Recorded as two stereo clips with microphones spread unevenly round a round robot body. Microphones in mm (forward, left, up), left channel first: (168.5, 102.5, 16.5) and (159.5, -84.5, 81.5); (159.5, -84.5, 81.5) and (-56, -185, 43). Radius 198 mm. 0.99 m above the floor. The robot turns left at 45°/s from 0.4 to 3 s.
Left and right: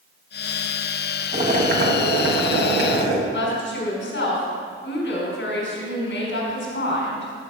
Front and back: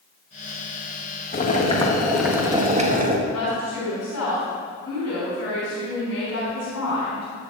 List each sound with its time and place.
1.3 s boiling: 30° right, 1.6 m; by 3.2 s 105° right, 1.6 m
3.3 s a woman speaking: 80° left, 3.5 m